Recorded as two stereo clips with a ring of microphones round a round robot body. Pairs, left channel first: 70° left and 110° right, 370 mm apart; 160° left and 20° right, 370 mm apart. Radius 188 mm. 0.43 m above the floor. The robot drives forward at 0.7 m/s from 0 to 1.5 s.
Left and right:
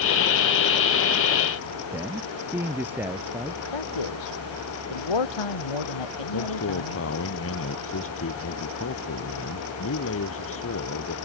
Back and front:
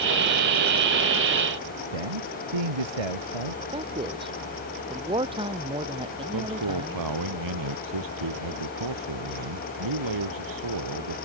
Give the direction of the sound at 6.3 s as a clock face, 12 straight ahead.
12 o'clock.